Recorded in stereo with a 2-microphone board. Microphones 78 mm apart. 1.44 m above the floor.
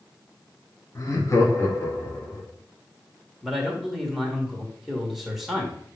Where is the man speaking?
Centre (ahead or behind), 1.5 m.